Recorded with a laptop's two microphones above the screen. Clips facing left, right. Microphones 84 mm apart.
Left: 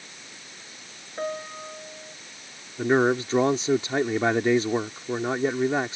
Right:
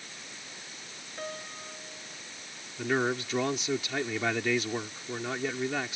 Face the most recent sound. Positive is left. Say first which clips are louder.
# left 8 dB
turn(degrees=35)  # may be behind; listen again after turning